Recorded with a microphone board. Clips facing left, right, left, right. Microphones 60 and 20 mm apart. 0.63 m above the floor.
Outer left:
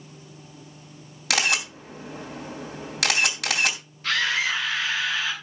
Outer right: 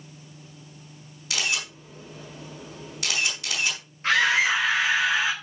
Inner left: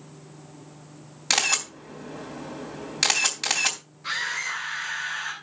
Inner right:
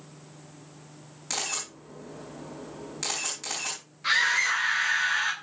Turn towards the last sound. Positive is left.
turn(degrees=-30)  # may be behind; listen again after turning